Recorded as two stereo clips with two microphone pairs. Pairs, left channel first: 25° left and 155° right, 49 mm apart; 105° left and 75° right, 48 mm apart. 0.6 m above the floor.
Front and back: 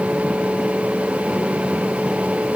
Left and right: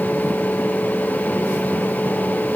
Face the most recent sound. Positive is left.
No sound to turn to.